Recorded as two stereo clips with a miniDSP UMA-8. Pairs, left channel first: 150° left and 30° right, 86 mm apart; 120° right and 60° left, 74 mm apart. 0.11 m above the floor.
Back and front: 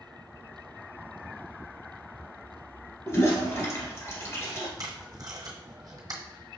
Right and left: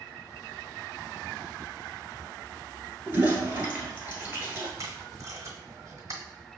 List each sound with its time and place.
3.1 s a toilet flushing: 110° left, 1.4 m
4.8 s tape being pulled: 15° left, 1.1 m